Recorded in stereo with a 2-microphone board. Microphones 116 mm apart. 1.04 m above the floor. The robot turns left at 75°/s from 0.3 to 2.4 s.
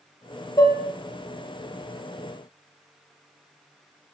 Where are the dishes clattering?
35° left (ahead or behind), 0.6 m; by 0.8 s 15° left (ahead or behind), 0.6 m.